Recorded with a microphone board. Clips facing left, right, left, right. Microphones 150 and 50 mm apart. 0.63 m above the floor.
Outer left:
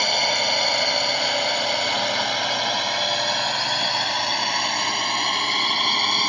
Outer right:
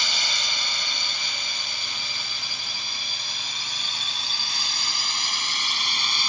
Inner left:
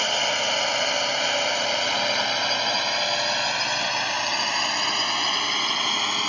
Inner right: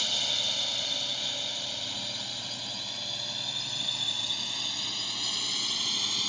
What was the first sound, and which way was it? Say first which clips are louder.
A drone: outer left 12 dB, inner left 9 dB; 60° left (ahead or behind).